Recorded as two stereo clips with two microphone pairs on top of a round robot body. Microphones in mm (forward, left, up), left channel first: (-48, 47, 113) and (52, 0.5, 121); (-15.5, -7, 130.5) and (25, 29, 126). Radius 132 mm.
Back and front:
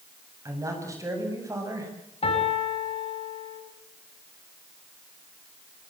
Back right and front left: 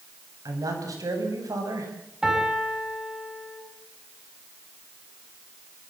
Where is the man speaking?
40° left, 8.5 m.